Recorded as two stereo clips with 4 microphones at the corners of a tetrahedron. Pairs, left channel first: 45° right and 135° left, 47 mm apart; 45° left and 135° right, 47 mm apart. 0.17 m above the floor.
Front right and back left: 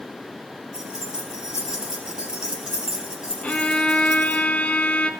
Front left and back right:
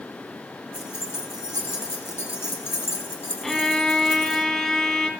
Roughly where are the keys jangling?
Ahead left.